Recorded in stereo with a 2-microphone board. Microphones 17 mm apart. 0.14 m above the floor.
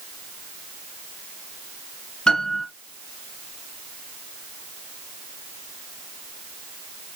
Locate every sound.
2.3 s a piano: 65° left (ahead or behind), 1.6 m